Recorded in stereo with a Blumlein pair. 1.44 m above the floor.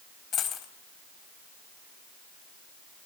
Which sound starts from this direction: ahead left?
A dropped coin, at 0.3 s.